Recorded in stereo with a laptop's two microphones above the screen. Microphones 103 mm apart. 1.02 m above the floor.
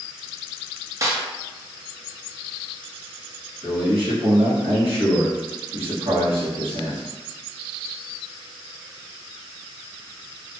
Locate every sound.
1.0 s a snare drum: 30° right (ahead or behind), 0.6 m
3.6 s a man speaking: 65° right (ahead or behind), 1.4 m